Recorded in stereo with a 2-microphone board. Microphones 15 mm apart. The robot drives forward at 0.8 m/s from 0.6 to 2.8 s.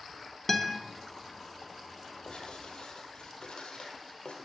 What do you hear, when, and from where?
0.5 s a guitar: 25° left (ahead or behind), 0.8 m; by 0.8 s 30° left (ahead or behind), 0.7 m
2.2 s writing: 80° left, 2 m